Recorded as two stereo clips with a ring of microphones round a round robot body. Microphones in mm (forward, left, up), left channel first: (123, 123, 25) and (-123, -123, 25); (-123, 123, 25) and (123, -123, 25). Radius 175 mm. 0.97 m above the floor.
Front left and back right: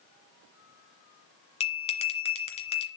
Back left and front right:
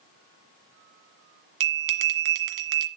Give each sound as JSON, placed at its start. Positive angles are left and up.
{"t": 1.6, "sound": "a bell", "azimuth_deg": -25, "distance_m": 1.6}